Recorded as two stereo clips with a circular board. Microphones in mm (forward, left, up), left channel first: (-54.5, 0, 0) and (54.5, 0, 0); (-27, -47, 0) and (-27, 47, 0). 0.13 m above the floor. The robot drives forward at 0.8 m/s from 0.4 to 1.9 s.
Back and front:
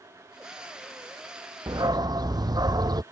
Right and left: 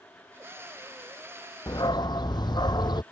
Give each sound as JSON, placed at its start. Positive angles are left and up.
{"t": 1.7, "sound": "a dog barking", "azimuth_deg": -45}